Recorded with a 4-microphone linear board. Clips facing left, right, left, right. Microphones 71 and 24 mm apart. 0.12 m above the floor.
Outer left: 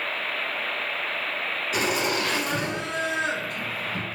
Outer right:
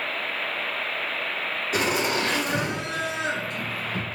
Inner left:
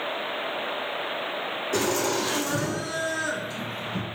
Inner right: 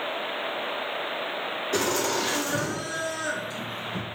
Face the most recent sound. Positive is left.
turn(degrees=20)  # may be behind; listen again after turning